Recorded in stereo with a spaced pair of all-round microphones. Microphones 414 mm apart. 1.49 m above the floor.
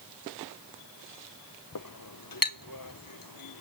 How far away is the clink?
About 0.7 m.